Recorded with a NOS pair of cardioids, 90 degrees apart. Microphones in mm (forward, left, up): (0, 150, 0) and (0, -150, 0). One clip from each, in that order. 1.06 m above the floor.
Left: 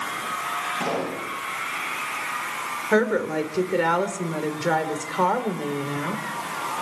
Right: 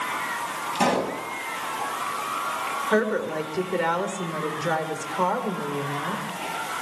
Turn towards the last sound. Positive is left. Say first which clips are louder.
# left 4 dB
turn(degrees=20)